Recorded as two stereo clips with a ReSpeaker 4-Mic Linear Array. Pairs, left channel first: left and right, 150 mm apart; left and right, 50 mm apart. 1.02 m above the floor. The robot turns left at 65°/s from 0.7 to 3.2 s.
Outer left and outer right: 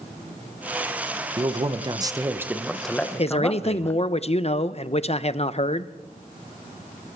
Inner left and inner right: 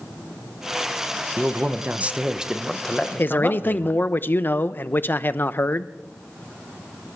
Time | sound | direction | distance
1.4 | a man speaking | 85° right | 0.9 m
3.2 | a man speaking | 45° left (ahead or behind) | 0.6 m